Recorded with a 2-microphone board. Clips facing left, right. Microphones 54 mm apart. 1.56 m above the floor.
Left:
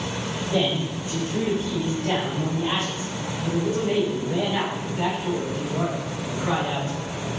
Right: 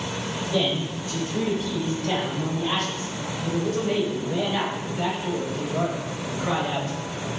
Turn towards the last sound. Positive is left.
turn(degrees=10)  # may be behind; listen again after turning